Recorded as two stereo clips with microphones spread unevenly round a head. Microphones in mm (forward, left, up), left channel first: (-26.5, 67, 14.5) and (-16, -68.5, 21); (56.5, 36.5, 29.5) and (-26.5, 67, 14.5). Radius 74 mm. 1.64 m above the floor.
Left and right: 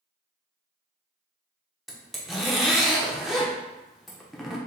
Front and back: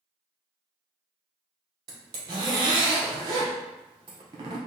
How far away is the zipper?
About 0.6 m.